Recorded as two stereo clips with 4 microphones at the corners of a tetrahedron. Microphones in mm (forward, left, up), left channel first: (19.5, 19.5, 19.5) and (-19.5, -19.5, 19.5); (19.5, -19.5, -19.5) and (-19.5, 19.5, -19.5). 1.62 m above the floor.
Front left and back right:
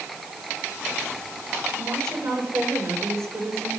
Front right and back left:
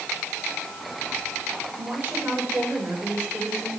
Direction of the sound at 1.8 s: 165° right.